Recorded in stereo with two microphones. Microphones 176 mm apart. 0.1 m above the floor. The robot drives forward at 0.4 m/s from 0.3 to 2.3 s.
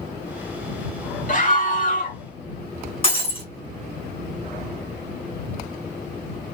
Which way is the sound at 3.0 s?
35° left (ahead or behind).